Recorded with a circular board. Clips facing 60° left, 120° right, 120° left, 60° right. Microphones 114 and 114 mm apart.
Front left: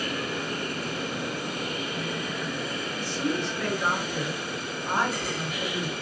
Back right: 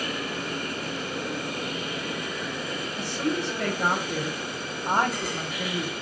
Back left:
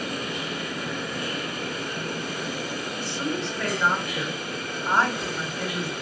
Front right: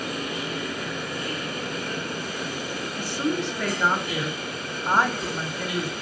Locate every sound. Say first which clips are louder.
3.0 s a woman speaking: back right 1 dB, front right 4 dB; 135° right, 3 m